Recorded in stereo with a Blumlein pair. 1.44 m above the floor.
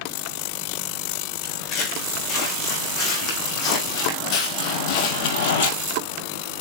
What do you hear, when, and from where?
1.4 s footsteps: 30° left, 5.5 m; by 5.7 s 50° left, 2 m